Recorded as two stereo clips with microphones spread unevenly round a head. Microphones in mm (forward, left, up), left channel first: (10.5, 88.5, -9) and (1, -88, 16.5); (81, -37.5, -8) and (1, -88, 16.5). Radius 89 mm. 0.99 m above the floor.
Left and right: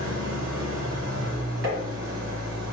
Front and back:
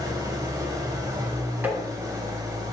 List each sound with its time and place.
0.0 s an engine running: 100° right, 2 m
1.6 s tapping: 85° right, 2 m